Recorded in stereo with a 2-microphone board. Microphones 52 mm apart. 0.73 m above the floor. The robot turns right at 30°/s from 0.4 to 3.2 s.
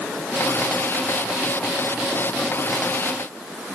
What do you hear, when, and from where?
Only background noise.